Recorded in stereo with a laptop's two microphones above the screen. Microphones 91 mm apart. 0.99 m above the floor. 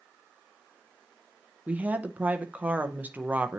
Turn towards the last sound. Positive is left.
turn(degrees=-15)  # may be behind; listen again after turning